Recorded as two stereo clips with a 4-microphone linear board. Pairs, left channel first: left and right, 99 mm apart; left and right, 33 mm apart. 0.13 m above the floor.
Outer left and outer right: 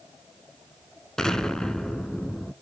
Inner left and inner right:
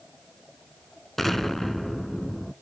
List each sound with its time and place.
1.2 s an explosion: 5° left (ahead or behind), 0.6 m